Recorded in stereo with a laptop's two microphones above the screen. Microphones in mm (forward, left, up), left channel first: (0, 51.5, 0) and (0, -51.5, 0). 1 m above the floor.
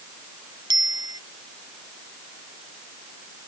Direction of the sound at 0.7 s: 40° right (ahead or behind).